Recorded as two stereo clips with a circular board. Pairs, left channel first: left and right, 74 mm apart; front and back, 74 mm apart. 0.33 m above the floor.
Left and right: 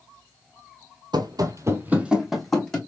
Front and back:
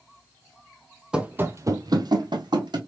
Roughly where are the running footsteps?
Right.